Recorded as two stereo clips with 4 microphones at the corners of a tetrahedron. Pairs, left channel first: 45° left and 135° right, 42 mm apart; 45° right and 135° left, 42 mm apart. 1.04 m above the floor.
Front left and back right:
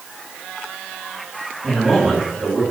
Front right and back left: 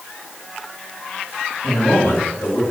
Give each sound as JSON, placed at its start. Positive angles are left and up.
{"t": 1.6, "sound": "a man speaking", "azimuth_deg": -60, "distance_m": 4.5}